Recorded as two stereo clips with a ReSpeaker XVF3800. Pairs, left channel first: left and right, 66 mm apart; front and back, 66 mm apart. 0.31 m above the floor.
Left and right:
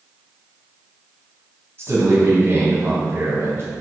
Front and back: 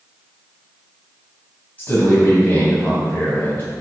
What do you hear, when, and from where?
1.8 s a man speaking: 50° right, 2.5 m